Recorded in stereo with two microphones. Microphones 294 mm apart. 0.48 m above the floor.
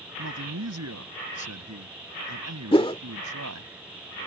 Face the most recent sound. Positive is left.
turn(degrees=20)  # may be behind; listen again after turning